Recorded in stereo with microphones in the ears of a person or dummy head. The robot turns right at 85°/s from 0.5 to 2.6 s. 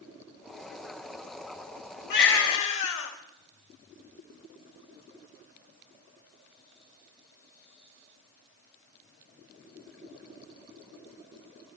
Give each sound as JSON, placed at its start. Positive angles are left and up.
{"t": 2.1, "sound": "a baby crying", "azimuth_deg": 60, "distance_m": 4.0}